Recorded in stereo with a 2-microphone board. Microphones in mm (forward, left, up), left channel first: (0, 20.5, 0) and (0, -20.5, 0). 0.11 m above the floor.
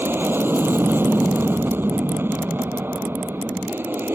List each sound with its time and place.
0.0 s an aircraft: 65° right (ahead or behind)